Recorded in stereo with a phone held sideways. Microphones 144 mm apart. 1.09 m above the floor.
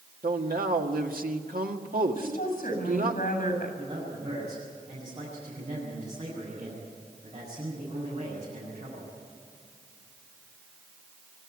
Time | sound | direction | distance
0.2 | a man speaking | 80° right | 1.7 m
2.1 | a woman speaking | 70° left (ahead or behind) | 7.5 m
3.8 | a man speaking | 50° right (ahead or behind) | 7.5 m